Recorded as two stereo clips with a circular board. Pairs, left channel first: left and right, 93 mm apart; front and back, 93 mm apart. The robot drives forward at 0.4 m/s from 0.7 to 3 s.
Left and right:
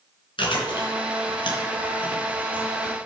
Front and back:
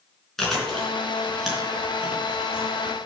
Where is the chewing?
85° left, 3.5 m; by 3.0 s 100° left, 3.5 m.